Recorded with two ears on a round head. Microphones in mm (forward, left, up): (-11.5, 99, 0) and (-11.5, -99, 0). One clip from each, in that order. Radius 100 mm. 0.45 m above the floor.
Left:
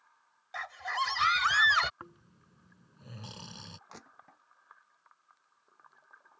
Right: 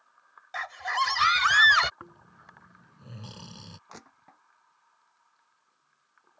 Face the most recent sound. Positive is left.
turn(degrees=0)  # may be behind; listen again after turning